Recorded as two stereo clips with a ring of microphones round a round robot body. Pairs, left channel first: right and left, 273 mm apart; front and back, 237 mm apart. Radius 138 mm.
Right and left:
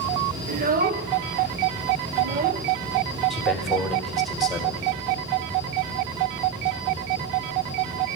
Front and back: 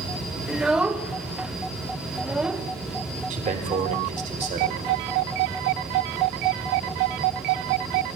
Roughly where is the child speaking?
Left.